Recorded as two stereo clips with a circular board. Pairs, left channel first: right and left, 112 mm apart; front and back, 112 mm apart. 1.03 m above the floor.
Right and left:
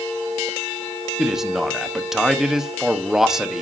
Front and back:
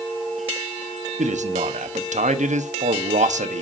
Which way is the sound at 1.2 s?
175° left.